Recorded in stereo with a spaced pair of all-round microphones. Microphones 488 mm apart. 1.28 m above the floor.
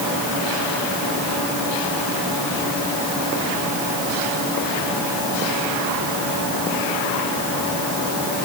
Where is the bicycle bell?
No bicycle bell in this recording.